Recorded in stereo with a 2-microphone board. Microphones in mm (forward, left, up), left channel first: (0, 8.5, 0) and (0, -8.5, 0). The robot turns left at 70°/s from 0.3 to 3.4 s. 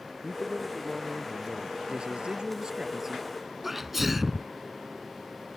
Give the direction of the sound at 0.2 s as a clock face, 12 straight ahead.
1 o'clock.